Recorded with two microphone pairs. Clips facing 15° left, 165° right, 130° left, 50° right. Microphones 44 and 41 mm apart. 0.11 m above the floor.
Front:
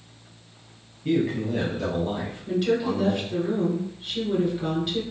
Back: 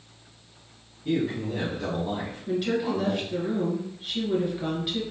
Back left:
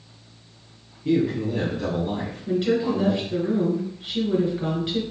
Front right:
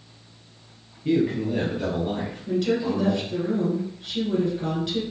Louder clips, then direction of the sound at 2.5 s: Front 3 dB, back left 2 dB; 120° left.